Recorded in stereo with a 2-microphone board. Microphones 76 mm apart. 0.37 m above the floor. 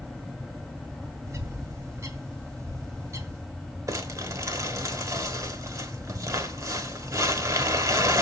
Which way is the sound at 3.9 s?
45° right (ahead or behind).